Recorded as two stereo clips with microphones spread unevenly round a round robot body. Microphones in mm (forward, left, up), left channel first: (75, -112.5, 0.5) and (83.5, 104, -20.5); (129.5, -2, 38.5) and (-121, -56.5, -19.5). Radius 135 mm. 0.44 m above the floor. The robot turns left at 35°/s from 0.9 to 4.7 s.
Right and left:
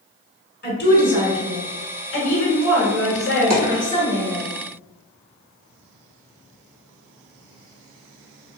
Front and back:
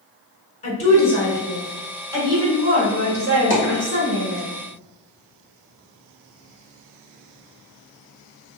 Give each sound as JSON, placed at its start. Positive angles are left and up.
{"t": 0.6, "sound": "a woman speaking", "azimuth_deg": -55, "distance_m": 1.3}
{"t": 3.5, "sound": "a dropped coin", "azimuth_deg": 85, "distance_m": 1.4}